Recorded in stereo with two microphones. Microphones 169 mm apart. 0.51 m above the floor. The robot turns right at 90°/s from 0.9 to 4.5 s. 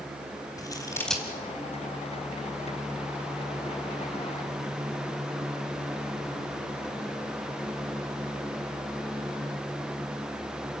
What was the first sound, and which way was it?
Scissors, 20° left (ahead or behind).